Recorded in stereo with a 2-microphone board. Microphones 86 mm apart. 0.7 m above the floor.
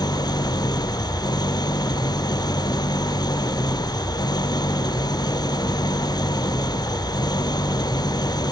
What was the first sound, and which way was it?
An engine running, 55° left (ahead or behind).